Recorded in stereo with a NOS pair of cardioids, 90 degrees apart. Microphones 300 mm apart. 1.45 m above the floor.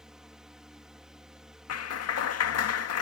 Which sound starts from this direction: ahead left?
A clap, at 1.7 s.